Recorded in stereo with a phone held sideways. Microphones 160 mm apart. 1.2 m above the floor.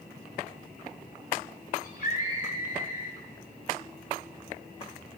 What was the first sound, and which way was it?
A scream, 60° left (ahead or behind).